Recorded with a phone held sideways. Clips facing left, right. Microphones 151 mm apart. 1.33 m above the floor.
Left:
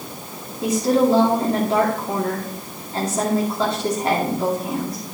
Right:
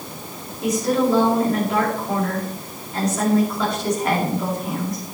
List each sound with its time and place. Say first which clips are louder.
0.6 s a woman speaking: left 2 dB; 30° left (ahead or behind), 2.5 m